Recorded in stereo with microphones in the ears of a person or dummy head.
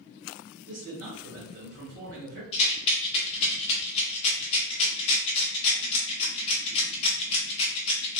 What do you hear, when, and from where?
0.7 s a man speaking: 80° right, 1.4 m
2.5 s a rattle: 30° left (ahead or behind), 0.7 m